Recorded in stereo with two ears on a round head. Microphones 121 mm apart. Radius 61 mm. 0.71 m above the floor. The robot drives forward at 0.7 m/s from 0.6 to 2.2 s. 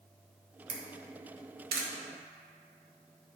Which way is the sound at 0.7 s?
55° right (ahead or behind).